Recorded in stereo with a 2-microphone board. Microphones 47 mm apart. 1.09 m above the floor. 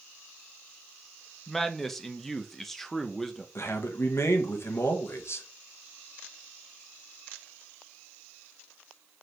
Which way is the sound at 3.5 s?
60° left (ahead or behind).